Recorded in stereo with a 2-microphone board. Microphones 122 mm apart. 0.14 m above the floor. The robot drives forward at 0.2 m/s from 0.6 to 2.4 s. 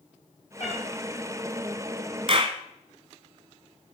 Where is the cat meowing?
60° left (ahead or behind), 2 m.